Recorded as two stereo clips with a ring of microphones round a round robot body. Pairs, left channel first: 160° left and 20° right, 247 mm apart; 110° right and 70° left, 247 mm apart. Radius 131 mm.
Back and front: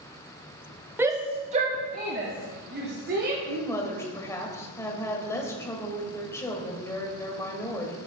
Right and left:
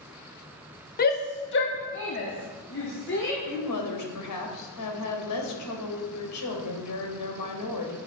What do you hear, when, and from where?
1.0 s a shout: 100° right, 1.0 m; by 3.4 s 70° right, 3.5 m
3.5 s a woman speaking: 120° right, 3.5 m